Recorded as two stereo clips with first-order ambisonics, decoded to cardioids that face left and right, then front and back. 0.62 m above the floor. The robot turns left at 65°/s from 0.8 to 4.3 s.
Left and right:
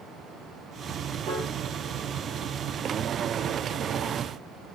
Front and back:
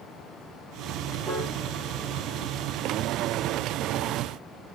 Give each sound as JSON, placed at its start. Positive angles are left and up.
{"t": 1.3, "sound": "a piano", "azimuth_deg": -110, "distance_m": 4.5}